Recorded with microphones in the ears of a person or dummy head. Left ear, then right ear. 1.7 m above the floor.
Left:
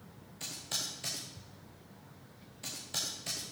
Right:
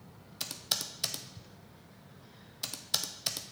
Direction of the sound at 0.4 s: 50° right (ahead or behind).